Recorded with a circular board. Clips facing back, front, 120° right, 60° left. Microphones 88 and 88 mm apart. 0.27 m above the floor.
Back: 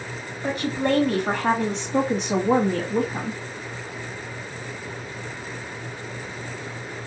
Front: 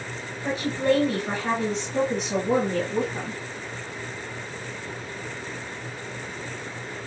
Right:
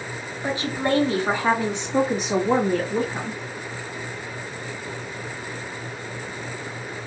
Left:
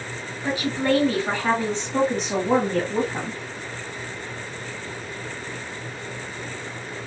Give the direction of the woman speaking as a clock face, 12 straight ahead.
6 o'clock.